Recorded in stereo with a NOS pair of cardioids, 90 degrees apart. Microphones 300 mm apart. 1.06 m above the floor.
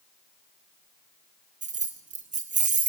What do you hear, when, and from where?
1.6 s keys jangling: 25° right, 0.5 m